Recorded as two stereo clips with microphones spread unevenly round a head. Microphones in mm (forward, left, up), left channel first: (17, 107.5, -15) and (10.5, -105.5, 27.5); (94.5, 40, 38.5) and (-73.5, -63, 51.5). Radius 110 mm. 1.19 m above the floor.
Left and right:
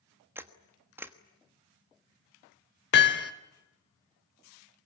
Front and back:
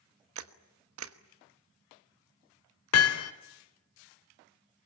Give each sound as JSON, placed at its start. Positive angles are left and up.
{"t": 0.3, "sound": "a camera shutter", "azimuth_deg": -170, "distance_m": 1.2}
{"t": 2.9, "sound": "hammering", "azimuth_deg": 45, "distance_m": 1.6}